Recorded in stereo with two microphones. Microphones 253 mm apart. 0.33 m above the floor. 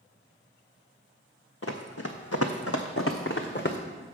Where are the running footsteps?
65° left (ahead or behind), 1.1 m; by 3.8 s 45° left (ahead or behind), 1.2 m.